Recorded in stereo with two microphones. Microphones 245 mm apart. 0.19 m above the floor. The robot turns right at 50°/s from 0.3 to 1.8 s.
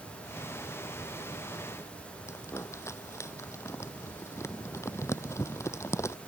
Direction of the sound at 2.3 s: 10° left (ahead or behind).